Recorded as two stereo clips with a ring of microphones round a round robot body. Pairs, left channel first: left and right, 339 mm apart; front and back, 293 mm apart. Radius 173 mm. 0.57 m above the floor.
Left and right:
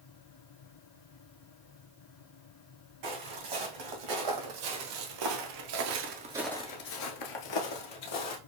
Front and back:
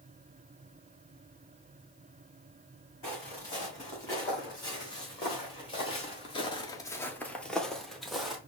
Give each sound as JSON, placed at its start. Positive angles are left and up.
{"t": 3.0, "sound": "footsteps", "azimuth_deg": -80, "distance_m": 2.5}